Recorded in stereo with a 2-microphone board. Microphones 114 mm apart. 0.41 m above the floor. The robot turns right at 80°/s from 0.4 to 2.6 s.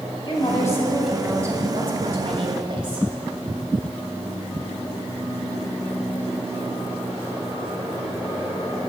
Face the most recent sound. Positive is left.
turn(degrees=-55)